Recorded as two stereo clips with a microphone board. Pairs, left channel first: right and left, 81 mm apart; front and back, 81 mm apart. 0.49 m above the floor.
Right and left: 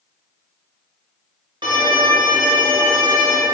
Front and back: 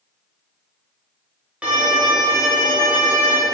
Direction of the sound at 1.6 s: 105° left.